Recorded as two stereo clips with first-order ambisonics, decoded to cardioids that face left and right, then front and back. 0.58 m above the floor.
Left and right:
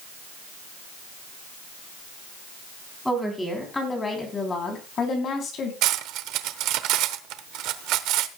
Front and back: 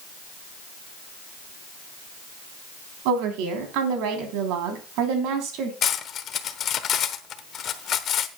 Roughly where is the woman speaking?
Behind.